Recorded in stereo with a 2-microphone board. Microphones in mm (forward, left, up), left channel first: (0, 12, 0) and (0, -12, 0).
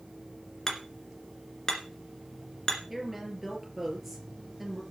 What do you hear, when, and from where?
0.7 s hammering: 25° left (ahead or behind), 2.5 m
2.9 s a woman speaking: 5° right (ahead or behind), 4.5 m